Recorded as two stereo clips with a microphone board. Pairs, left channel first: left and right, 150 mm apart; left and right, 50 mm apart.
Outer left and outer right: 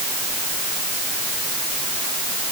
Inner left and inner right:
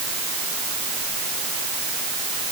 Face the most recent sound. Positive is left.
No sound to turn to.